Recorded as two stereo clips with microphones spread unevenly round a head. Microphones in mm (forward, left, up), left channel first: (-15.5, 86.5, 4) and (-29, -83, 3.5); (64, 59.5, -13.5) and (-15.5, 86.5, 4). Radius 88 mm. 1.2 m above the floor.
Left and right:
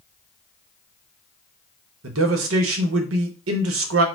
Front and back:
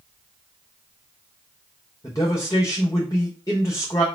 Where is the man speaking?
90° right, 0.8 m.